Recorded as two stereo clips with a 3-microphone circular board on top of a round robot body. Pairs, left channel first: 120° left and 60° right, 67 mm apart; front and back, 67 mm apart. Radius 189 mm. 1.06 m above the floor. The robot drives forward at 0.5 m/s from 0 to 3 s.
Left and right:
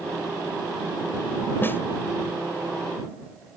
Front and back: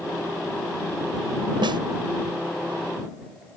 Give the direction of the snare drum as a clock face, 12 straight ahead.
6 o'clock.